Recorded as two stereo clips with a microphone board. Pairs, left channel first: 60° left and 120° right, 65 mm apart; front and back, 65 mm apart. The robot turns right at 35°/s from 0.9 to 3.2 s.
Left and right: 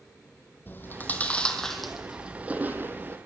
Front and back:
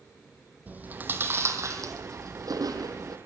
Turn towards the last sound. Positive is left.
turn(degrees=-160)